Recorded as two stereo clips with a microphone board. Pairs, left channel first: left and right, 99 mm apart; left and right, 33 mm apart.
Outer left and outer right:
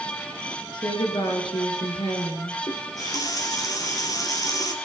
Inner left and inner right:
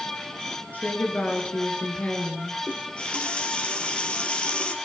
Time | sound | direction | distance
0.7 | a woman speaking | 60° left (ahead or behind) | 2.5 m
2.7 | a running tap | 40° left (ahead or behind) | 2.5 m